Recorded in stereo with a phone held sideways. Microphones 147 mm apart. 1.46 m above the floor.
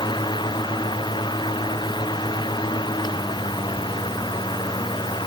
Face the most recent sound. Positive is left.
turn(degrees=30)  # may be behind; listen again after turning